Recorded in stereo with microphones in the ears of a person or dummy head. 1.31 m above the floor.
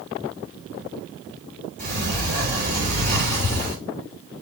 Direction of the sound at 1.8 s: 50° right (ahead or behind).